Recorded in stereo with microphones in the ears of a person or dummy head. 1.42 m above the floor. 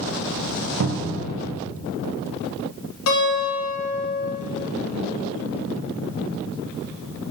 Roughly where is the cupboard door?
Right.